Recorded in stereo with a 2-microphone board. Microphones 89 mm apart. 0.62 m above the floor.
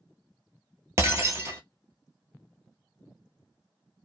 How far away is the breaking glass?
About 0.7 m.